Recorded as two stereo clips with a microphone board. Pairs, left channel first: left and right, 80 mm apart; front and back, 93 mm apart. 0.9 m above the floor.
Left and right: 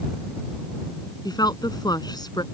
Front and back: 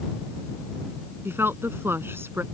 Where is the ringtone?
I don't hear a ringtone.